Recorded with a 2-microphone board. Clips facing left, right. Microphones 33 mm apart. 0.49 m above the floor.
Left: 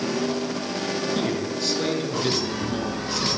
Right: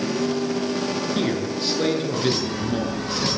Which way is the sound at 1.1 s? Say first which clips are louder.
Right 2 dB; 15° right (ahead or behind).